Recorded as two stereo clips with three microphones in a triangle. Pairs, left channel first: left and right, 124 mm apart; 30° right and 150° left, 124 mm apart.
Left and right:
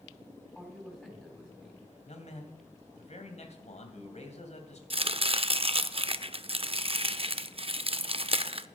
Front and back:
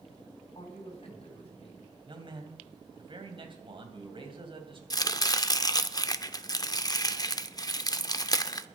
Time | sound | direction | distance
0.6 | a man speaking | 5° left | 3.5 m
2.1 | a man speaking | 105° left | 2.5 m
4.9 | chopping | 80° right | 0.5 m